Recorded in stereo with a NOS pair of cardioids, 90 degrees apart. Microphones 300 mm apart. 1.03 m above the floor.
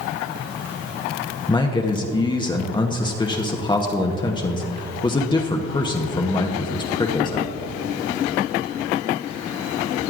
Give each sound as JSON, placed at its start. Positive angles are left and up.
{"t": 1.5, "sound": "a man speaking", "azimuth_deg": 15, "distance_m": 1.0}